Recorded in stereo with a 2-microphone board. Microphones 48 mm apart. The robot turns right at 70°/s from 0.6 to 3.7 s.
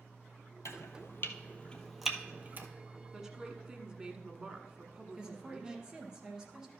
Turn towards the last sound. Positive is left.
turn(degrees=-15)  # may be behind; listen again after turning